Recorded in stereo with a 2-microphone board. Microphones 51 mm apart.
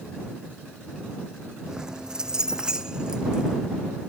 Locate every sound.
1.7 s keys jangling: 10° right (ahead or behind); by 3.6 s 15° right (ahead or behind)